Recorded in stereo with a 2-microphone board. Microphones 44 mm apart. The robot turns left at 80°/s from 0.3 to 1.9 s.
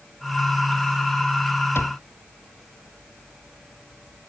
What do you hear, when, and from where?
1.8 s a cupboard door: 65° left (ahead or behind); by 2.0 s 80° left